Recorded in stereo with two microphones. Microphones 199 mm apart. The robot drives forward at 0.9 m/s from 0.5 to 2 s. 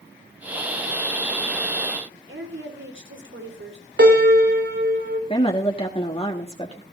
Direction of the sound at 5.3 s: 30° left (ahead or behind).